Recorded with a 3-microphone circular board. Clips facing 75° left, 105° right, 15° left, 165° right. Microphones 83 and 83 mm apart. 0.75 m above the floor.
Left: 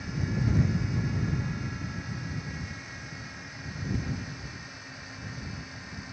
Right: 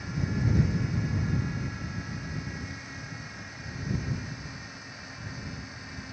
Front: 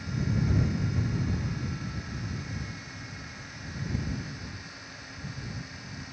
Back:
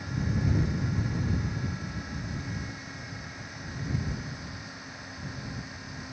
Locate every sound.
Only background noise.